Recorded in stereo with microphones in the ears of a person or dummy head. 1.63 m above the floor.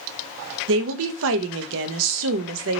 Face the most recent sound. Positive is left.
turn(degrees=-70)  # may be behind; listen again after turning